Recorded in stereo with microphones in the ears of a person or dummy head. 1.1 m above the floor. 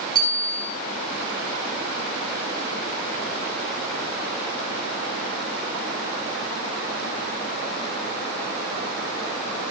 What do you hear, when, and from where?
0.1 s a bicycle bell: 30° left (ahead or behind), 7 m